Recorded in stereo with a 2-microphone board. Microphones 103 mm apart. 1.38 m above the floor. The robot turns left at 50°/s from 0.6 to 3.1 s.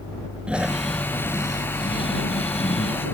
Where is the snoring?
170° right; by 3.0 s 70° left.